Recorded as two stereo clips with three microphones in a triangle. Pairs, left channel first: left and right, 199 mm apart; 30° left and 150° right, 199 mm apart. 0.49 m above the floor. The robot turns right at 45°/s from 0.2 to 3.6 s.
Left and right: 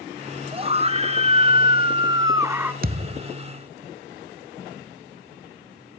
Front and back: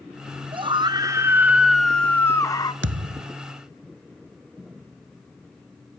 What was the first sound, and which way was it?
A scream, 115° right.